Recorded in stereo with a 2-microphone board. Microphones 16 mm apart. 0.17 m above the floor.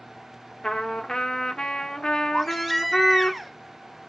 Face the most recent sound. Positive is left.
turn(degrees=-5)  # may be behind; listen again after turning